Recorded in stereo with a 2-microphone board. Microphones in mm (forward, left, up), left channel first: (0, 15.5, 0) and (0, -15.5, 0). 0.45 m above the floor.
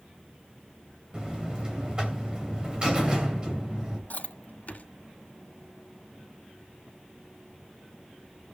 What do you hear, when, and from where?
1.1 s a buzzer: 30° right (ahead or behind), 2.5 m
4.1 s chewing: 55° left (ahead or behind), 1.5 m